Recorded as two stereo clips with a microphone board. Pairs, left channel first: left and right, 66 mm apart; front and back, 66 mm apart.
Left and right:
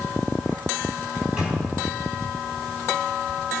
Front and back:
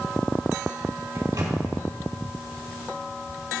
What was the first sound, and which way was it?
A microwave, 165° right.